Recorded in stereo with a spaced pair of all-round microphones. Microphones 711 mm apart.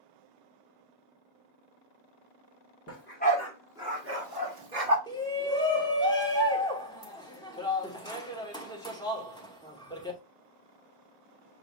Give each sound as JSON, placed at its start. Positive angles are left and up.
{"t": 2.9, "sound": "a dog barking", "side_deg": 20, "distance_m": 1.7}
{"t": 5.1, "sound": "a shout", "side_deg": 5, "distance_m": 1.2}